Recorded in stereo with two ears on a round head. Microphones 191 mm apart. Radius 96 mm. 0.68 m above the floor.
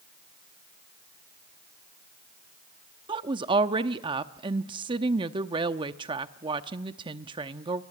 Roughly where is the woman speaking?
Right.